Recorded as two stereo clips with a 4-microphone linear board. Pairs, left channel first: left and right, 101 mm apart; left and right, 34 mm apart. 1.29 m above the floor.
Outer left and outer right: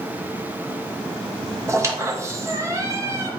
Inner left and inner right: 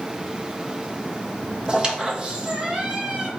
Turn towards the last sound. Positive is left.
turn(degrees=-30)  # may be behind; listen again after turning